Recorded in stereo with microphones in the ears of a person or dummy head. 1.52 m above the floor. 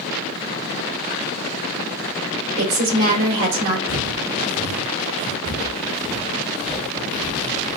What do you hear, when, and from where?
2.6 s a woman speaking: 80° right, 2.5 m
3.9 s footsteps: 40° right (ahead or behind), 2 m; by 5.3 s 65° right (ahead or behind), 3.5 m
5.5 s footsteps: 35° left (ahead or behind), 2.0 m; by 7.8 s centre (ahead or behind), 1.7 m